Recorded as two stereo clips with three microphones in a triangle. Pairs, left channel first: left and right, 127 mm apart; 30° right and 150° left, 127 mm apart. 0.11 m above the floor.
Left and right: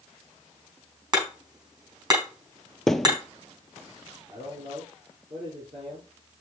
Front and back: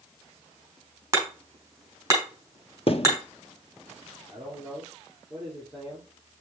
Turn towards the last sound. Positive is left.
turn(degrees=-115)